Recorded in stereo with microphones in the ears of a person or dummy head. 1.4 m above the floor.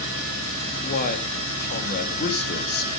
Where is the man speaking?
55° left (ahead or behind), 3 m.